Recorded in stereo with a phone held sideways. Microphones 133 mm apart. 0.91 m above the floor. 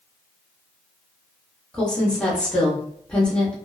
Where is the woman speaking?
5° left (ahead or behind), 1.1 m.